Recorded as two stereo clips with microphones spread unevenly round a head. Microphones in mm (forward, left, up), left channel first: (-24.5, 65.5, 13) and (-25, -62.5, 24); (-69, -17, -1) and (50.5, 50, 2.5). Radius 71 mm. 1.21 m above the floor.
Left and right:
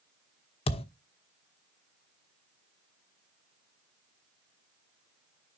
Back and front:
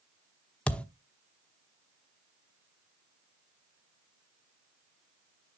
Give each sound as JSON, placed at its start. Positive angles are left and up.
{"t": 0.7, "sound": "a thud", "azimuth_deg": 125, "distance_m": 1.0}